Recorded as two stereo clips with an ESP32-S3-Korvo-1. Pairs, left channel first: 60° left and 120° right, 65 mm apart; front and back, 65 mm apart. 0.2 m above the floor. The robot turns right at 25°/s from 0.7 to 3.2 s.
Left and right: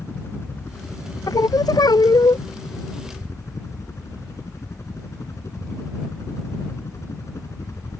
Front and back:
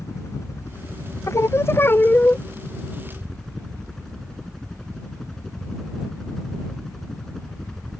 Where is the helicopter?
20° left; by 8.0 s 80° left.